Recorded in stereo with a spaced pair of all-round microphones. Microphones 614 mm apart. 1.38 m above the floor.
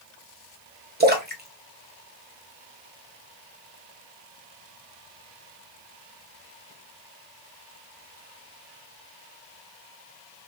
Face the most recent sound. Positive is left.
turn(degrees=-15)  # may be behind; listen again after turning